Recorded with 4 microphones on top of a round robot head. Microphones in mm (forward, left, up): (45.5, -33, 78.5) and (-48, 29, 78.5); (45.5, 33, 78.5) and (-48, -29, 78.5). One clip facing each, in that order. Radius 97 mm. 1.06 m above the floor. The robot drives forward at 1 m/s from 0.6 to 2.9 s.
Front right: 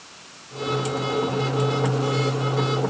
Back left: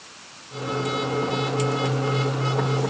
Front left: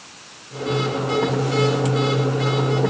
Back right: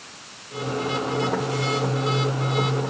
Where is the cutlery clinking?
No cutlery clinking in this recording.